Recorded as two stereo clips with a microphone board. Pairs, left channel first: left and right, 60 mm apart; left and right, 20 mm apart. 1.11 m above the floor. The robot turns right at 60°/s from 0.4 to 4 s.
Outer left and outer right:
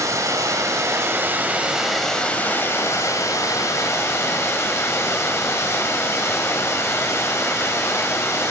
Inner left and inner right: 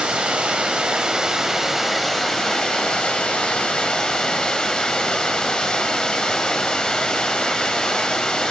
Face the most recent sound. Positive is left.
turn(degrees=125)